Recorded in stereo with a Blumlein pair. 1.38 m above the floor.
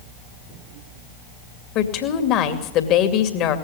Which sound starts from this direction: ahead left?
A woman speaking, at 1.8 s.